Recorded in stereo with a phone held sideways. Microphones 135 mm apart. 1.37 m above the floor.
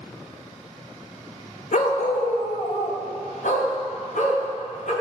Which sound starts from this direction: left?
A dog barking, at 1.7 s.